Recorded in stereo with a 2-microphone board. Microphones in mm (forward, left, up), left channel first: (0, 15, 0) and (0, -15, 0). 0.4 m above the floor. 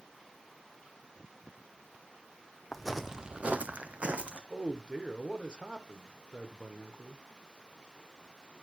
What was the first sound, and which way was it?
Footsteps, 5° left (ahead or behind).